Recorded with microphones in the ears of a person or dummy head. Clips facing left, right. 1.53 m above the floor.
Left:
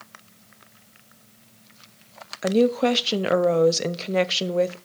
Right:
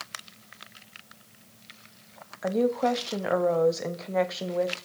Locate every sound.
2.4 s a woman speaking: 50° left (ahead or behind), 0.6 m